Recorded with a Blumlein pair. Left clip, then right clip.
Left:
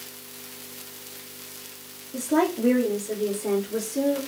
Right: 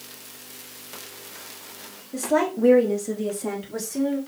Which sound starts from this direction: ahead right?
A woman speaking, at 2.1 s.